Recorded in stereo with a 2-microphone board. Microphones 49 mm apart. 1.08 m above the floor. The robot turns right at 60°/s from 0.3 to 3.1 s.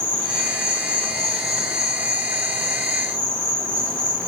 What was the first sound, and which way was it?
An insect, 110° left.